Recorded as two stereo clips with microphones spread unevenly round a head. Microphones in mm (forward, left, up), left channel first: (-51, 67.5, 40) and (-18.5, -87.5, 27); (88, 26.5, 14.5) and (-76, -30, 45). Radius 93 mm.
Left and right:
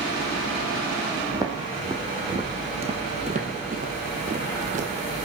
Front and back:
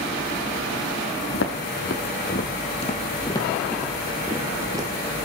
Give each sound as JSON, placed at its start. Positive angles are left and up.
{"t": 1.3, "sound": "footsteps", "azimuth_deg": 0, "distance_m": 2.0}